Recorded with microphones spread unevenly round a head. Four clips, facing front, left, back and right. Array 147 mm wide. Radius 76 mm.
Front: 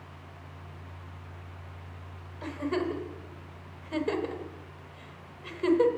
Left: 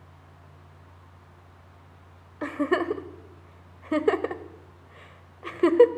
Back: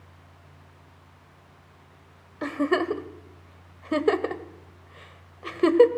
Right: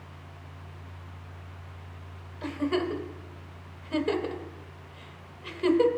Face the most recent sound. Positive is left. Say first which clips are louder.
# left 3 dB, back 6 dB
turn(degrees=135)